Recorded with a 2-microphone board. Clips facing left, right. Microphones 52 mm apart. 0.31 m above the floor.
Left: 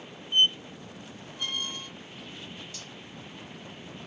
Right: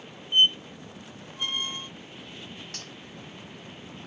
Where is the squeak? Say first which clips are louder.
Right 2 dB; 25° right (ahead or behind), 1.1 m.